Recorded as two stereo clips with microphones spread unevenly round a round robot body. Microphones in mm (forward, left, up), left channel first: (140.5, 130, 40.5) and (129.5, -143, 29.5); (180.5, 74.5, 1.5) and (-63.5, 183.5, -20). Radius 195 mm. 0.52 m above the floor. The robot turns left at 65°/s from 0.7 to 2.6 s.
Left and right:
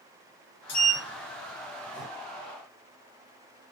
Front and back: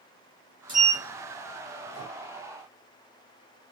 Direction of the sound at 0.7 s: 85° left.